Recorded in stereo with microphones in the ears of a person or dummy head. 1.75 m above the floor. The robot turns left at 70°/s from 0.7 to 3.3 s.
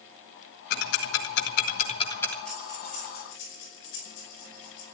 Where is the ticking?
50° left (ahead or behind), 1.8 m; by 2.4 s 5° left (ahead or behind), 1.8 m.